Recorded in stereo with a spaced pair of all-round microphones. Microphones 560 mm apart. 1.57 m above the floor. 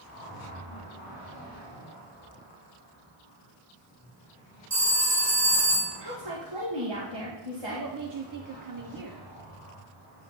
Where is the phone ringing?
30° right (ahead or behind), 1.0 m.